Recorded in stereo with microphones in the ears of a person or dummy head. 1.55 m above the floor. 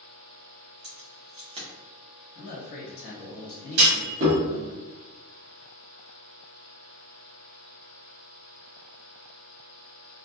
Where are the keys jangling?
30° right (ahead or behind), 1.1 m.